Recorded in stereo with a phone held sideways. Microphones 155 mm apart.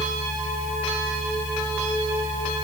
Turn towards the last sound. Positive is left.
turn(degrees=30)  # may be behind; listen again after turning